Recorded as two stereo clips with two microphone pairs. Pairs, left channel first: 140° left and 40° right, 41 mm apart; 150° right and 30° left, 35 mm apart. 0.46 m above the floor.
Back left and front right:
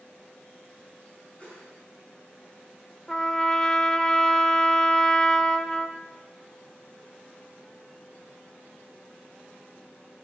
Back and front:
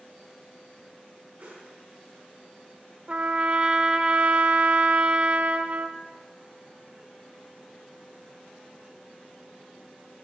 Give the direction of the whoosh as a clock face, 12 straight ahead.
9 o'clock.